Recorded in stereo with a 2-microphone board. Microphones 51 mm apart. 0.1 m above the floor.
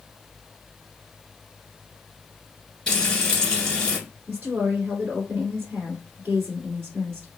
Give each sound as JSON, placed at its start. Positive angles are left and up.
{"t": 2.9, "sound": "frying", "side_deg": 15, "distance_m": 1.8}
{"t": 4.3, "sound": "a woman speaking", "side_deg": -30, "distance_m": 1.6}